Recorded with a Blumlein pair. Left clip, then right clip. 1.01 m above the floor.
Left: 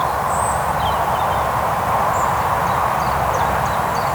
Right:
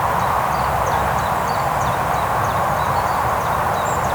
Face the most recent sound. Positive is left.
No sound to turn to.